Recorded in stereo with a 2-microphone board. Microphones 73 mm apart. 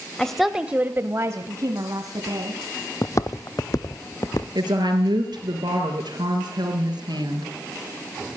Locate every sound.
0.2 s a woman speaking: 10° left (ahead or behind), 0.9 m; by 2.6 s 60° right (ahead or behind), 2 m
3.0 s footsteps: 50° left (ahead or behind), 0.6 m; by 4.5 s 55° left (ahead or behind), 1.5 m
4.5 s a woman speaking: 75° right (ahead or behind), 4.5 m